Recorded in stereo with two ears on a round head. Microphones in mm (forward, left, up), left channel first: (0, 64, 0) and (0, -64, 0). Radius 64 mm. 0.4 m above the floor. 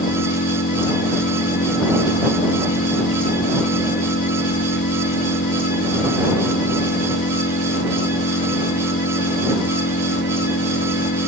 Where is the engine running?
75° left (ahead or behind).